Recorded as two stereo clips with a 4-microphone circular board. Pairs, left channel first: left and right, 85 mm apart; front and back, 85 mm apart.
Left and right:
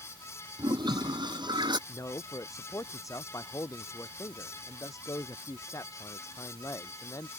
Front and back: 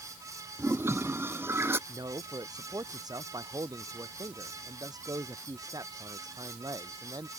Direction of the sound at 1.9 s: 140° left.